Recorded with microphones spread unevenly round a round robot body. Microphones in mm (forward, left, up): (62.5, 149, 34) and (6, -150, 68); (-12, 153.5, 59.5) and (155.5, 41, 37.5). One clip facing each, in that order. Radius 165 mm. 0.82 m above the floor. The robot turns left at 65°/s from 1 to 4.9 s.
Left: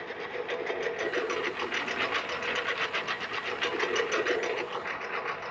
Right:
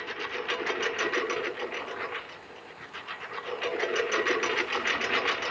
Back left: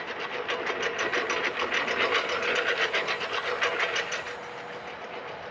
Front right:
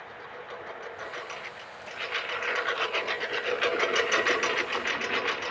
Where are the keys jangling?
I don't hear keys jangling.